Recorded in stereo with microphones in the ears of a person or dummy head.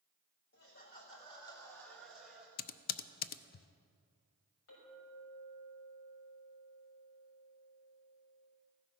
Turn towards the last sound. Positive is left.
turn(degrees=75)  # may be behind; listen again after turning